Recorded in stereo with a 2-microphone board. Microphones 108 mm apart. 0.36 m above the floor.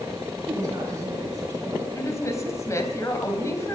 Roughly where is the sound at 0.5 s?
Right.